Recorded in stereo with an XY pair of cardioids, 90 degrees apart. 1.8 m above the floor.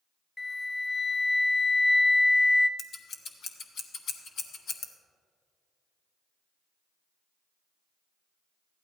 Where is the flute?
25° left, 0.5 m.